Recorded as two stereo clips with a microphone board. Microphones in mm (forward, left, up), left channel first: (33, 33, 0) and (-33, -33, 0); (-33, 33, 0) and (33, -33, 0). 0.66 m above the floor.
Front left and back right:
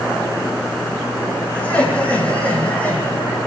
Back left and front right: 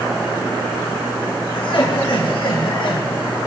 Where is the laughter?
120° left, 8.5 m.